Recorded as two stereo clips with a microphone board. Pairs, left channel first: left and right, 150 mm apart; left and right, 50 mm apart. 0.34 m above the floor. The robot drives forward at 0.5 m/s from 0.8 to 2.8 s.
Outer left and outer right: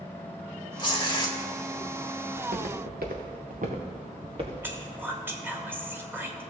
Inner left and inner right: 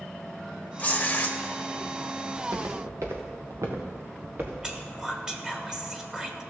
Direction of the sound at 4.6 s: 15° right (ahead or behind).